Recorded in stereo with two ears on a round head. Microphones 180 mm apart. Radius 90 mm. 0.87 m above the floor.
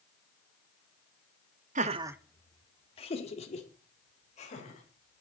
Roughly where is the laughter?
Right.